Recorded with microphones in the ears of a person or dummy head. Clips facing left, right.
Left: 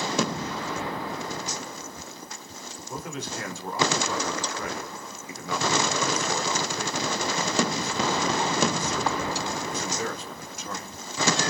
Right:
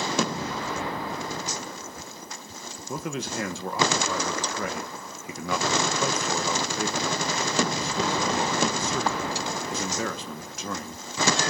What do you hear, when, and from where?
2.9 s a man speaking: 55° right (ahead or behind), 1.5 m